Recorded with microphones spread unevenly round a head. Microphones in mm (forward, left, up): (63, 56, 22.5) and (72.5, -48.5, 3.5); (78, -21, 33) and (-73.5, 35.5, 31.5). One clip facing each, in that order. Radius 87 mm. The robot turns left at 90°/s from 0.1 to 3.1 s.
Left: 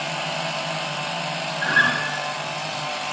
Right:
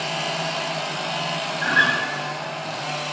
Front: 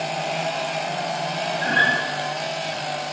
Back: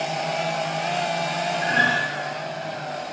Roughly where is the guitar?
Ahead.